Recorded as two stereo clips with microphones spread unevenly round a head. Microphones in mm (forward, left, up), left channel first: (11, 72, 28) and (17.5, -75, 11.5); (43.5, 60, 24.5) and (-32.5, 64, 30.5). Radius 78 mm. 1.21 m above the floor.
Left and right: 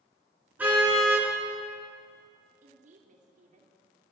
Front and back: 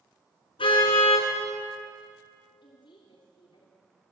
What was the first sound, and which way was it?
A car horn, 5° right.